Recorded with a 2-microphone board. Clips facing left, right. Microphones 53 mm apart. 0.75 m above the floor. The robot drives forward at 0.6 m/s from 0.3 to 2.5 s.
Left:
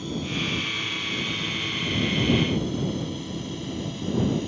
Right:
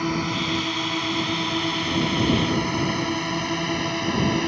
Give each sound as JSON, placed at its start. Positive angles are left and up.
{"t": 0.0, "sound": "a drone", "side_deg": -70}